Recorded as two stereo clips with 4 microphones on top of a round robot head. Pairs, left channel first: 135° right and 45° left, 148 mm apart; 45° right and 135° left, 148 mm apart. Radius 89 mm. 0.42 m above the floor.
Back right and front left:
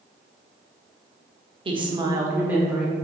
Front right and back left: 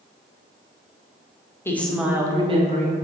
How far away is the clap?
I don't hear a clap.